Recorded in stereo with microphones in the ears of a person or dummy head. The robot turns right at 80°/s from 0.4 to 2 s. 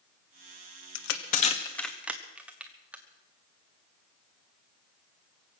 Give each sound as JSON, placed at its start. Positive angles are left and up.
{"t": 0.9, "sound": "crushing", "side_deg": 80, "distance_m": 1.1}